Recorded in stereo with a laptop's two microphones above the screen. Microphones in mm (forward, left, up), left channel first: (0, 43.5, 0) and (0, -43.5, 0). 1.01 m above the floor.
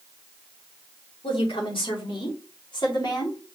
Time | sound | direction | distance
1.2 | a woman speaking | 85° left | 2.5 m